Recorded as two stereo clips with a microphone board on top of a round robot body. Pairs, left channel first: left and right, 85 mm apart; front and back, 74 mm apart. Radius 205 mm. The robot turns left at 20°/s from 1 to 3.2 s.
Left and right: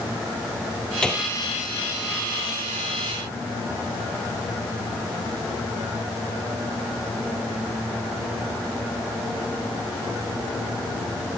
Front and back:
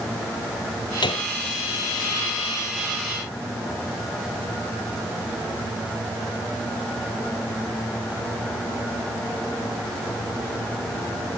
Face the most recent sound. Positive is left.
turn(degrees=-35)